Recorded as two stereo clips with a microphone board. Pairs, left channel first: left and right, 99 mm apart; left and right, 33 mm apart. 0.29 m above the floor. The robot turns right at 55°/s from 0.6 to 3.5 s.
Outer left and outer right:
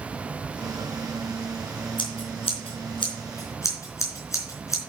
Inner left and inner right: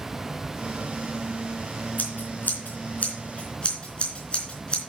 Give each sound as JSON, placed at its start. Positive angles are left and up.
{"t": 2.0, "sound": "scissors", "side_deg": 60, "distance_m": 3.5}